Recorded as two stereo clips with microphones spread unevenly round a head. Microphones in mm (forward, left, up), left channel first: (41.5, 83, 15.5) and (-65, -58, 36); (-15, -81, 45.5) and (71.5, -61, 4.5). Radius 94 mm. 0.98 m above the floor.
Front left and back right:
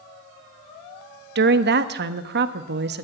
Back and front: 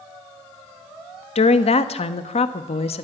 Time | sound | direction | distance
1.4 | a woman speaking | 155° right | 1.3 m